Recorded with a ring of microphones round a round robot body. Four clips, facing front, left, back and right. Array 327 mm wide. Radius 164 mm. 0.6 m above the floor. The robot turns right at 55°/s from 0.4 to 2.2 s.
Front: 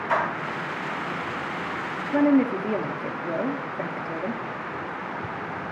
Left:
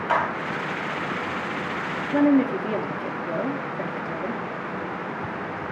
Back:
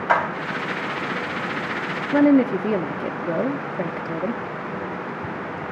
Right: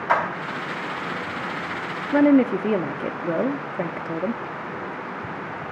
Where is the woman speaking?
130° right, 0.8 m; by 4.4 s 125° right, 0.8 m.